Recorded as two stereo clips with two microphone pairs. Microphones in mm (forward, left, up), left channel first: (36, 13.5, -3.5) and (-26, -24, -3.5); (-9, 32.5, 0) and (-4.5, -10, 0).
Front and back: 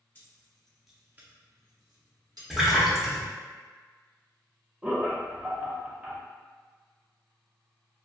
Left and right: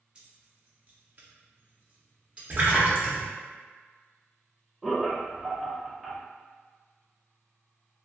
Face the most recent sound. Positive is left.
turn(degrees=175)